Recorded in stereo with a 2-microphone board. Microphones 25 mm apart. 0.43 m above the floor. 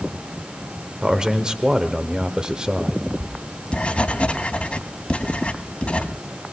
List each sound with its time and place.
1.0 s a man speaking: 30° right (ahead or behind), 1.1 m
3.2 s writing: 50° left (ahead or behind), 1.4 m